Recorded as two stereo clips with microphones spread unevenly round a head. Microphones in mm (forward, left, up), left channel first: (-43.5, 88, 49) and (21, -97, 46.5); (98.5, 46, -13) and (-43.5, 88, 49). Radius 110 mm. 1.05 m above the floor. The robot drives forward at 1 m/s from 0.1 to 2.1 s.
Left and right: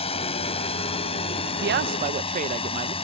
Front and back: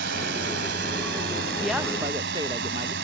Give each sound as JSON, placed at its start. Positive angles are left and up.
{"t": 0.0, "sound": "a drone", "azimuth_deg": 170}
{"t": 1.6, "sound": "a man speaking", "azimuth_deg": -90}